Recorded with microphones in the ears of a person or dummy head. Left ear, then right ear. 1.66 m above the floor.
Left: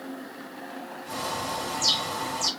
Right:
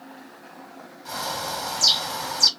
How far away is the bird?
About 1.2 m.